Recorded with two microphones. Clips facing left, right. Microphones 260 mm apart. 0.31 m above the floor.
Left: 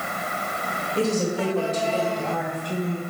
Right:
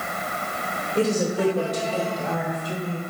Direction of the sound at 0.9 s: 20° right (ahead or behind).